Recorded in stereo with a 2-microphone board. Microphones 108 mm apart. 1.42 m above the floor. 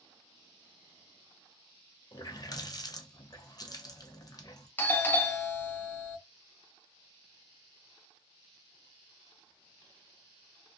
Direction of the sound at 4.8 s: 20° left (ahead or behind).